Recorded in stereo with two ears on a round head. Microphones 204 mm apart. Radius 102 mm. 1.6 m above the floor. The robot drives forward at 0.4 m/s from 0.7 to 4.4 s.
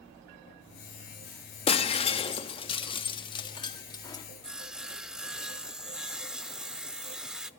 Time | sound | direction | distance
1.7 | breaking glass | 25° left (ahead or behind) | 1.0 m
4.4 | sawing | 5° right (ahead or behind) | 0.5 m